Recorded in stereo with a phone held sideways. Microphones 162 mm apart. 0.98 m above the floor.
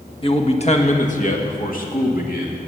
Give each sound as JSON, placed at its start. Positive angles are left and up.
{"t": 0.2, "sound": "a man speaking", "side_deg": 35, "distance_m": 1.3}